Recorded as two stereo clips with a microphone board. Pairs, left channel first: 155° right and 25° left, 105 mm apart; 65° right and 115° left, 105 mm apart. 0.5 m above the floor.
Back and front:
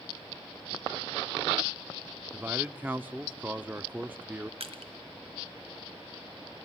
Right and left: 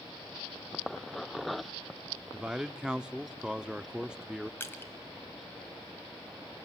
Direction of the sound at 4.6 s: Straight ahead.